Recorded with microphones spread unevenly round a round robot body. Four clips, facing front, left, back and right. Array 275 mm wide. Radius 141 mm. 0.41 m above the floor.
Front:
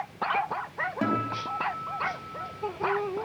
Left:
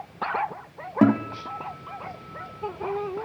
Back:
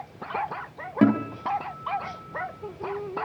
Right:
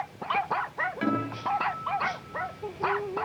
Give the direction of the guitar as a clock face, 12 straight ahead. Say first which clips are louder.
Left 9 dB, back 8 dB; 8 o'clock.